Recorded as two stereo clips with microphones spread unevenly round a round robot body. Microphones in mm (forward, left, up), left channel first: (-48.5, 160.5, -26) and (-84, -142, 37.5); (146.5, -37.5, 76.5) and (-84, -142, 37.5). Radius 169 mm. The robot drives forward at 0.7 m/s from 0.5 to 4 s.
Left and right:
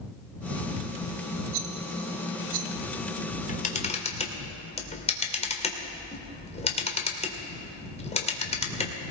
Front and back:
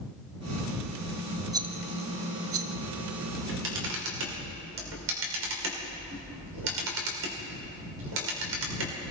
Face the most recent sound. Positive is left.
turn(degrees=155)